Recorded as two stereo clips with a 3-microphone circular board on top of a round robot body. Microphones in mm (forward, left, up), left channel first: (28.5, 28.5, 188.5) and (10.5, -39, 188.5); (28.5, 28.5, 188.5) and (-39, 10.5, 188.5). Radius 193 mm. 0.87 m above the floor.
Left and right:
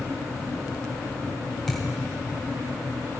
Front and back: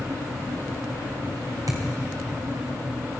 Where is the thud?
160° left, 2.5 m.